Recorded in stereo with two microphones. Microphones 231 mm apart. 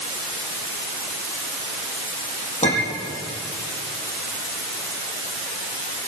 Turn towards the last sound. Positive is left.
turn(degrees=30)  # may be behind; listen again after turning